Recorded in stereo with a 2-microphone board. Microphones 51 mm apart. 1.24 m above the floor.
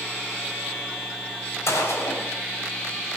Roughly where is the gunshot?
Left.